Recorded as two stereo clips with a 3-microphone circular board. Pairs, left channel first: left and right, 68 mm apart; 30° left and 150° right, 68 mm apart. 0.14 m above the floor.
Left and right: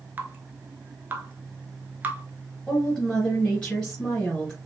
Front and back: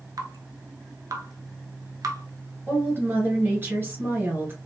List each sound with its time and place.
0.2 s dripping: 150° right, 0.5 m
2.7 s a woman speaking: straight behind, 2 m